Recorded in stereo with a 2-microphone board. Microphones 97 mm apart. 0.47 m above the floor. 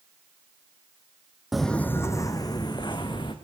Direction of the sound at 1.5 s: 5° right (ahead or behind).